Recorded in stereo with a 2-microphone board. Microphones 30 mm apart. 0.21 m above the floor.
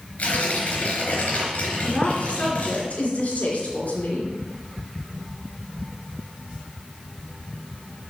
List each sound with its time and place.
0.2 s tearing paper: 50° left (ahead or behind), 3.5 m
1.8 s a woman speaking: 50° left (ahead or behind), 3 m